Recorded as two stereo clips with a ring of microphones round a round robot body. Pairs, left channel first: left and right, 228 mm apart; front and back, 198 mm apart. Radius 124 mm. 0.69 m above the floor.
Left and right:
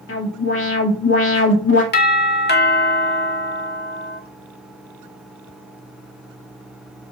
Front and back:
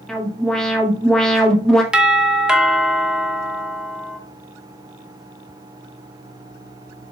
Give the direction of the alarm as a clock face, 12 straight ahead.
9 o'clock.